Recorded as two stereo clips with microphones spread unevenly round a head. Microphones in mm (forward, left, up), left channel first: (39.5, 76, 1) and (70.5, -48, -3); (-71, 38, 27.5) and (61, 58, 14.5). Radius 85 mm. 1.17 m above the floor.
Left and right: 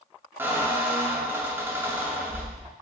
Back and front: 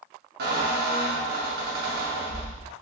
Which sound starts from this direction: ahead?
A squeak, at 0.4 s.